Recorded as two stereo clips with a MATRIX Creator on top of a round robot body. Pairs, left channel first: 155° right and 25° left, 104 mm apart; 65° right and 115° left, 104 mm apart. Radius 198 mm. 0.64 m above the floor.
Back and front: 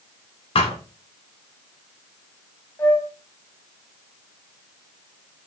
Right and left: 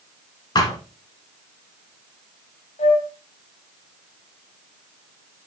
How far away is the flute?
About 0.8 m.